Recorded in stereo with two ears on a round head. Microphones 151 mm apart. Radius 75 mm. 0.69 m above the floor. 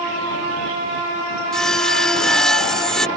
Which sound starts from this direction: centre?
Sawing, at 1.5 s.